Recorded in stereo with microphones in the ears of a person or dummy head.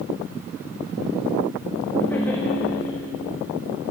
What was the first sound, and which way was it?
Laughter, 15° left (ahead or behind).